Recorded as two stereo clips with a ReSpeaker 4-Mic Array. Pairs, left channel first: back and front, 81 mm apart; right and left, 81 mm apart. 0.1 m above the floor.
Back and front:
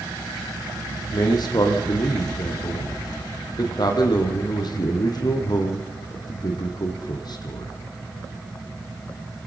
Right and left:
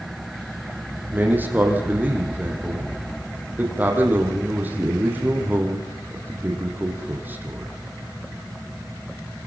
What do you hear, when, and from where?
1.1 s a man speaking: 155° left, 5 m